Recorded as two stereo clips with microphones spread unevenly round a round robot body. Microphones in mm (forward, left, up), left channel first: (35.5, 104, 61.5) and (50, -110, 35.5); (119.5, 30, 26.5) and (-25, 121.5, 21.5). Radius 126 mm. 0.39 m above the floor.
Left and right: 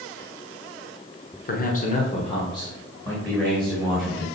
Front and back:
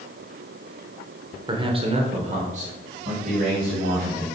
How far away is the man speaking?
About 1.1 m.